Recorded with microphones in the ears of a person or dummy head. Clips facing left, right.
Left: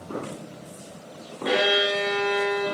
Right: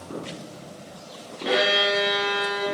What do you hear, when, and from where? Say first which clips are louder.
1.4 s a violin: even; 5° left (ahead or behind), 0.6 m